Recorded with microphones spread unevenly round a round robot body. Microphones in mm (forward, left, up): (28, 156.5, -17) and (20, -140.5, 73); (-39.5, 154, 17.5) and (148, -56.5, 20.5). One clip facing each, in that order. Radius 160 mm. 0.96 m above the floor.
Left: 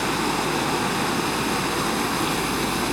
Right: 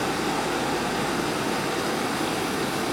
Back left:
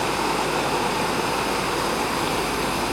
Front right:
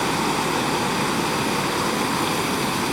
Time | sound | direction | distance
0.0 | running water | 10° left | 2.5 m